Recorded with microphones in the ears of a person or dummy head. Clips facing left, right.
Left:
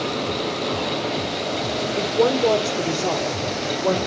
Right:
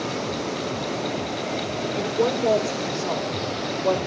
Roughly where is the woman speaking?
Left.